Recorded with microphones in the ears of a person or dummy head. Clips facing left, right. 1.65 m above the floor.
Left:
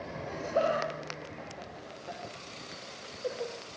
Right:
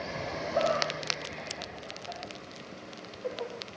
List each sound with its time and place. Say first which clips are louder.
0.3 s laughter: even; 35° left (ahead or behind), 7.5 m; by 3.5 s 20° left (ahead or behind), 6 m